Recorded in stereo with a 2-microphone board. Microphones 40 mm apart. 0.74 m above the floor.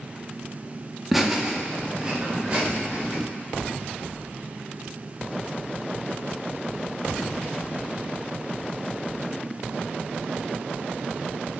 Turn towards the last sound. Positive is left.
turn(degrees=-30)  # may be behind; listen again after turning